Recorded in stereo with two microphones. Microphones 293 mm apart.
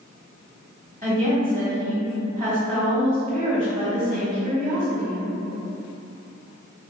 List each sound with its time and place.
1.0 s a woman speaking: 30° right (ahead or behind), 1.4 m